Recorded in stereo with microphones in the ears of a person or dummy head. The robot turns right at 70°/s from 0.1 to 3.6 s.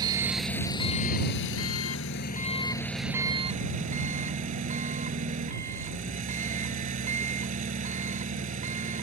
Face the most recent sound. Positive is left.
turn(degrees=-135)